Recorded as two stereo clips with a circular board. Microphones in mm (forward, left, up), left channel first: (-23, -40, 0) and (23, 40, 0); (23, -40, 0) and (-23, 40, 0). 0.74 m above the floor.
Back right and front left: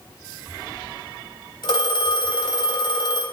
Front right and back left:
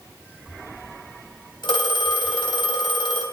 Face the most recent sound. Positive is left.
turn(degrees=-90)